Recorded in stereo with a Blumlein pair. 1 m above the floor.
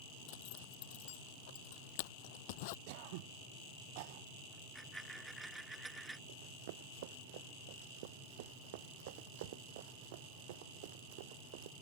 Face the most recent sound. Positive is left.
turn(degrees=-50)